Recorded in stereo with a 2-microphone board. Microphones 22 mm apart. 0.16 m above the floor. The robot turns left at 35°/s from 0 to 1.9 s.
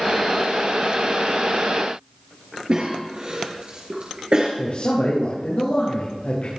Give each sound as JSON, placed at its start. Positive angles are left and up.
{"t": 2.7, "sound": "a cough", "side_deg": -40, "distance_m": 2.5}
{"t": 4.6, "sound": "a man speaking", "side_deg": 60, "distance_m": 4.5}